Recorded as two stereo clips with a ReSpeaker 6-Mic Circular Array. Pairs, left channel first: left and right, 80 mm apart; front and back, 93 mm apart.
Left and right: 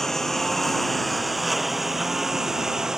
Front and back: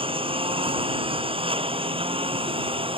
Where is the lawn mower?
175° left; by 3.0 s 175° right.